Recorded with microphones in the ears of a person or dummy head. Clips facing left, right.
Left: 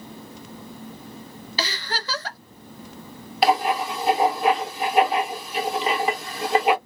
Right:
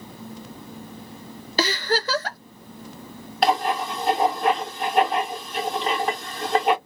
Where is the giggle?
40° right (ahead or behind), 0.6 m.